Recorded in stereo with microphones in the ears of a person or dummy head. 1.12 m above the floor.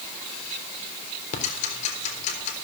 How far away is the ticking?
About 3.5 m.